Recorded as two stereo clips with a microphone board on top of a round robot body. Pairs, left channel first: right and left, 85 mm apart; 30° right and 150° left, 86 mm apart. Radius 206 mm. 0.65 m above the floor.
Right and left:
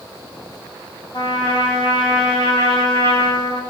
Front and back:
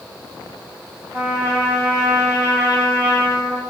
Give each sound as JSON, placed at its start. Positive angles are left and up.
{"t": 1.1, "sound": "a trumpet", "azimuth_deg": -130, "distance_m": 4.5}